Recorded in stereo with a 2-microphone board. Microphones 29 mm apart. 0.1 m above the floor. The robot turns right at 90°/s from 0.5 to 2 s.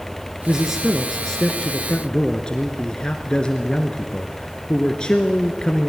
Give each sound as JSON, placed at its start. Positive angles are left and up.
{"t": 0.5, "sound": "a man speaking", "side_deg": -15, "distance_m": 1.3}